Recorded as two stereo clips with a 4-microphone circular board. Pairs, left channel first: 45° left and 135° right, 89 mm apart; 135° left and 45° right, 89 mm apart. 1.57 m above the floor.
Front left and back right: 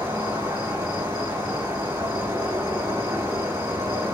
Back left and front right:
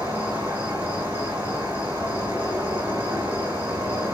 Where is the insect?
110° right, 1.5 m.